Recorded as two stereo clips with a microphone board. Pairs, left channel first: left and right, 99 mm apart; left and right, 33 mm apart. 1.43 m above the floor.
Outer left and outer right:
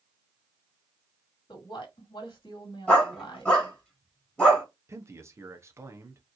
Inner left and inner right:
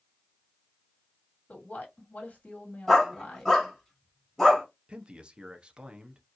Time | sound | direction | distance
1.5 | a woman speaking | 50° left (ahead or behind) | 2 m
2.9 | a dog barking | 10° left (ahead or behind) | 2.5 m
4.9 | a man speaking | 30° right (ahead or behind) | 0.9 m